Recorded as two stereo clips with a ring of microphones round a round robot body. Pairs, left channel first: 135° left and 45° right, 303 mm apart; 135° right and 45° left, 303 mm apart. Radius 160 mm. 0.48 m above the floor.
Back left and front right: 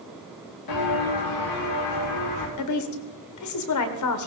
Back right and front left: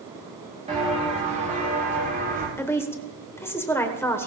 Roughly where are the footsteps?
Behind left.